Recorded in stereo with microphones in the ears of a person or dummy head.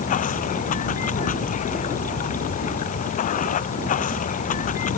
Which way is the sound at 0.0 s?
40° left (ahead or behind).